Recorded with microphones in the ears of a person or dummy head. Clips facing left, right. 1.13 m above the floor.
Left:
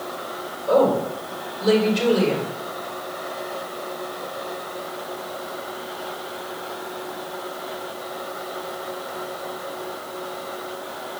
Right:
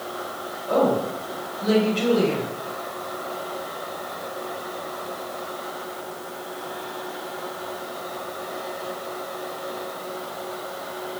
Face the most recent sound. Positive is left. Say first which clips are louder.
# left 3 dB
turn(degrees=70)  # may be behind; listen again after turning